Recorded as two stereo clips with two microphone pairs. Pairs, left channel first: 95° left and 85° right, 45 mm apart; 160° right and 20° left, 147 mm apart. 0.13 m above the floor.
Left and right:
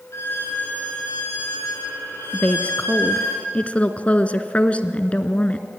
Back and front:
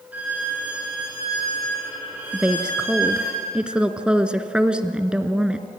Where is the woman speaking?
95° left, 1.5 m.